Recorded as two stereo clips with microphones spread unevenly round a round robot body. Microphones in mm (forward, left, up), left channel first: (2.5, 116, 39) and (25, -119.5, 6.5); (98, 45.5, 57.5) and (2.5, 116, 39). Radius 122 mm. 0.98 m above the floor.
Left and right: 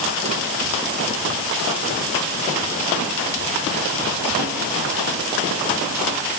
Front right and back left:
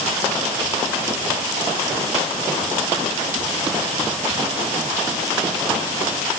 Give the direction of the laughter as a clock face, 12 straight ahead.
I don't hear laughter.